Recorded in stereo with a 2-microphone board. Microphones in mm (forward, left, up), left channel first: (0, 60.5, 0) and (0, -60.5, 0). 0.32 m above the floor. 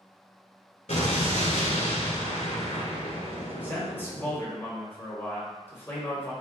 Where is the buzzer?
I don't hear a buzzer.